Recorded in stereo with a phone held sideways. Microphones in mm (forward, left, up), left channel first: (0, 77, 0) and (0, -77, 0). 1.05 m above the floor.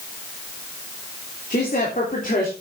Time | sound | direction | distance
1.5 | a woman speaking | 55° left (ahead or behind) | 3.5 m